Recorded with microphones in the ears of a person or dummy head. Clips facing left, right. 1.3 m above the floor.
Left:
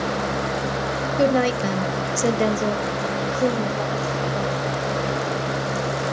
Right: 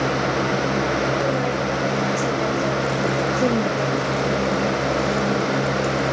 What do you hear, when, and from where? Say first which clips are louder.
1.2 s a woman speaking: left 3 dB; 70° left (ahead or behind), 1.2 m; by 4.7 s 25° right (ahead or behind), 1.6 m